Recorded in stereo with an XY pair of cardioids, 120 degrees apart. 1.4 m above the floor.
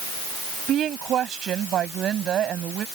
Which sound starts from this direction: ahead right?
A woman speaking, at 0.7 s.